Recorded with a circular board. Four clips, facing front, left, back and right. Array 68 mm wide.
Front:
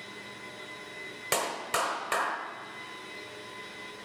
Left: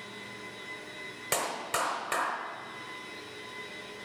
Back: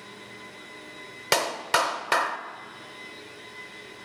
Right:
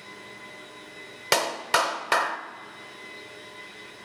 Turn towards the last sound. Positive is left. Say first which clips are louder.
# right 8 dB, back 6 dB
turn(degrees=-125)